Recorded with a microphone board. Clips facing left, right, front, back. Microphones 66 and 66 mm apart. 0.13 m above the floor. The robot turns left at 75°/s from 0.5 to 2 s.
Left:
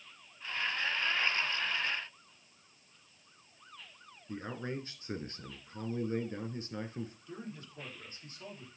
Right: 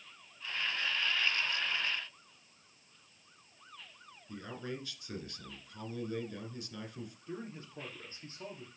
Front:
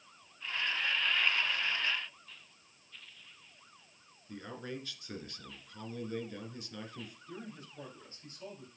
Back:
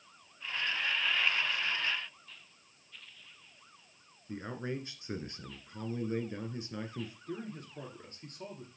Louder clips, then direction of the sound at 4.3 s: Left 3 dB, back 4 dB; 130° left.